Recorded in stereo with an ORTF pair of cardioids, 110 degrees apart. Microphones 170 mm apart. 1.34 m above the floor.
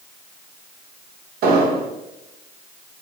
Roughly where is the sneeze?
No sneeze in this recording.